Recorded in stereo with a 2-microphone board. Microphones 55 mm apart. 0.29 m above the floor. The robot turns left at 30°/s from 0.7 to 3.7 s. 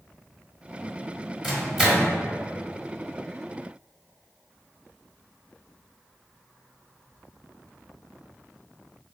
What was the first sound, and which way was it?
A microwave, centre (ahead or behind).